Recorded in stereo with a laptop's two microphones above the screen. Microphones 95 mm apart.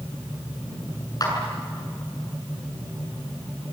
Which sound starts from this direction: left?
A clap, at 1.2 s.